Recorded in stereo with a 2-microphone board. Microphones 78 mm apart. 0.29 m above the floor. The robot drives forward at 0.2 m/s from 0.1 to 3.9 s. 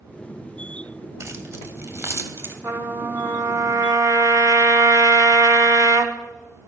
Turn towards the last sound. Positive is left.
turn(degrees=-55)  # may be behind; listen again after turning